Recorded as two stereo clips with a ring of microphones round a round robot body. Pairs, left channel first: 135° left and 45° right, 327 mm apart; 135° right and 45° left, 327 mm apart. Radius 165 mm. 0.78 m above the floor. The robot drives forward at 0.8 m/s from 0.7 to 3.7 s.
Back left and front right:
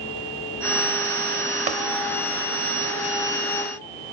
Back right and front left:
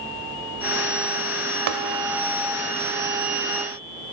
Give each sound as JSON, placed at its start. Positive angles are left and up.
{"t": 1.7, "sound": "tapping", "azimuth_deg": 25, "distance_m": 0.8}